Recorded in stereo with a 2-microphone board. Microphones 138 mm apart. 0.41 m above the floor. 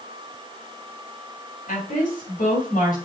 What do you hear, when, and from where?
1.7 s a woman speaking: 75° left (ahead or behind), 4.5 m; by 3.0 s 80° left, 5.5 m